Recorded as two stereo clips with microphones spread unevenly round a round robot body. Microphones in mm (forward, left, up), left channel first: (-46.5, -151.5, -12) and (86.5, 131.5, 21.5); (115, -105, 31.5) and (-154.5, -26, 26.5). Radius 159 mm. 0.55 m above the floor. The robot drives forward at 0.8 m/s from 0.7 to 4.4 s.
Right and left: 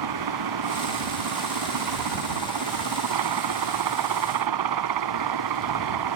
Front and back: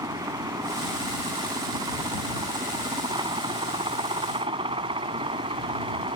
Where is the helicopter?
85° left; by 6.2 s 90° left.